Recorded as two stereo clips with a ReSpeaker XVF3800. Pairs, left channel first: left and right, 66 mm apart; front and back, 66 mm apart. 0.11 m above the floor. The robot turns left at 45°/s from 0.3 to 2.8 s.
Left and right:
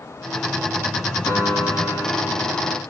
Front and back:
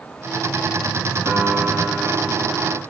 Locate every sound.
1.2 s a piano: 125° left, 6.5 m; by 2.8 s 55° left, 6.5 m